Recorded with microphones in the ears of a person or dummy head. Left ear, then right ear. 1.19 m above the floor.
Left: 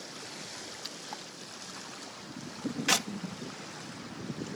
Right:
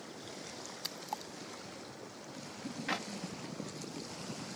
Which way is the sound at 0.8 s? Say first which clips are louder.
Even; 15° right (ahead or behind).